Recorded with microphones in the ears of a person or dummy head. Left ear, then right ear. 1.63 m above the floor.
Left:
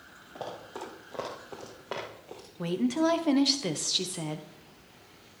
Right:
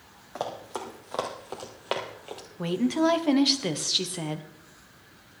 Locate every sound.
0.3 s running footsteps: 35° right (ahead or behind), 3 m; by 2.4 s 25° right (ahead or behind), 1.7 m
2.6 s a woman speaking: 5° right (ahead or behind), 0.8 m